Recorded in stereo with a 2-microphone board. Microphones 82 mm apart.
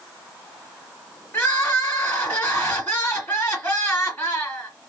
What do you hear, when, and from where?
1.3 s crying: 20° left (ahead or behind), 1.8 m